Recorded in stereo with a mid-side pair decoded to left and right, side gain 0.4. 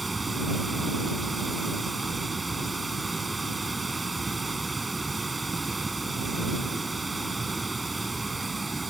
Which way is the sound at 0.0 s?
15° right.